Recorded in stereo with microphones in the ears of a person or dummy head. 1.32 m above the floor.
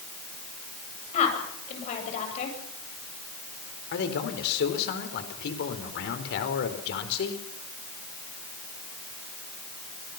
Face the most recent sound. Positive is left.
turn(degrees=65)  # may be behind; listen again after turning